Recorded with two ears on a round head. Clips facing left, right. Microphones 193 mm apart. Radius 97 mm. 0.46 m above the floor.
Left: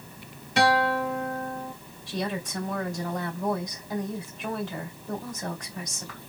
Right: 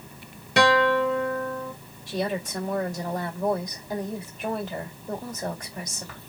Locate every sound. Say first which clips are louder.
0.6 s a guitar: right 3 dB; 55° right (ahead or behind), 1.0 m
2.1 s a woman speaking: right 3 dB; 35° right (ahead or behind), 1.8 m